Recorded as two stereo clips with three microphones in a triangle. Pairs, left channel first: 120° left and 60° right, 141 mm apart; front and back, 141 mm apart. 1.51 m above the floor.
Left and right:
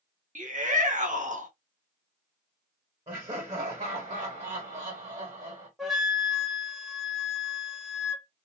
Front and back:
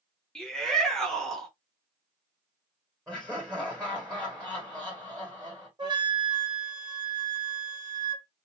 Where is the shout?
85° right, 0.7 m.